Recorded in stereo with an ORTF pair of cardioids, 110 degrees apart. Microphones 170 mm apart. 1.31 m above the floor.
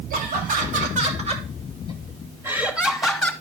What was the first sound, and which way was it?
Laughter, 60° right.